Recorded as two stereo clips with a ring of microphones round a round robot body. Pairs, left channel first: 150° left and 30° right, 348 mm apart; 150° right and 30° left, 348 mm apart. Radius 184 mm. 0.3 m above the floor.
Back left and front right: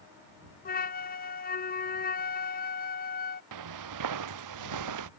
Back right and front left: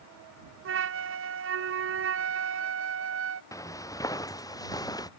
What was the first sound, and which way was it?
A flute, 85° left.